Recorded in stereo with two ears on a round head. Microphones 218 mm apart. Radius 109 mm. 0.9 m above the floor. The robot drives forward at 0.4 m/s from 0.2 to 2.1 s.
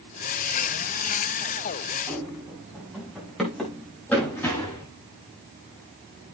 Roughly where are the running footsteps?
Centre.